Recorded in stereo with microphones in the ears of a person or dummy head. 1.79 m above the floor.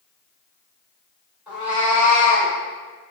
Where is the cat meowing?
Centre (ahead or behind), 1.9 m; by 2.5 s 30° right (ahead or behind), 2.0 m.